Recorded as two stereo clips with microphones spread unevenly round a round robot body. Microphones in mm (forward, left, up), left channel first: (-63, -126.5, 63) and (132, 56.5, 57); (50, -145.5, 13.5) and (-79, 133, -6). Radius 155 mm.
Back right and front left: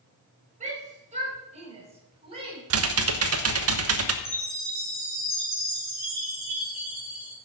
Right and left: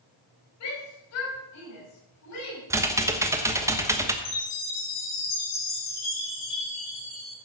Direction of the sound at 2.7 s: 35° left.